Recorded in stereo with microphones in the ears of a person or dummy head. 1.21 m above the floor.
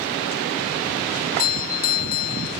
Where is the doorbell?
45° left (ahead or behind), 0.8 m.